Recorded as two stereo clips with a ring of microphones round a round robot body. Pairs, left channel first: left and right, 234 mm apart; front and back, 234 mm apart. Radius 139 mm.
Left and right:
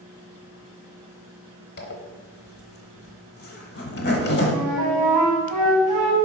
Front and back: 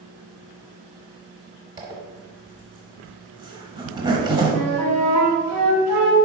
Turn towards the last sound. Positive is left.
turn(degrees=180)